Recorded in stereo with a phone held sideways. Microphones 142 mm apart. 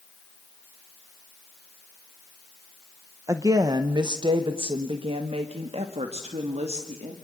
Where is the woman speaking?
20° right (ahead or behind), 0.9 m; by 7.1 s 50° right (ahead or behind), 2.5 m.